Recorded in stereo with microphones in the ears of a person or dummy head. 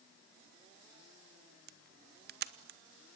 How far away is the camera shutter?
About 1.0 m.